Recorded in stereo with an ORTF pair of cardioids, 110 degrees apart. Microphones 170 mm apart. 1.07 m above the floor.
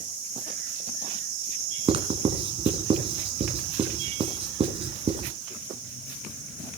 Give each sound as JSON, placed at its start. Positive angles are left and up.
{"t": 1.9, "sound": "writing", "azimuth_deg": -35, "distance_m": 2.5}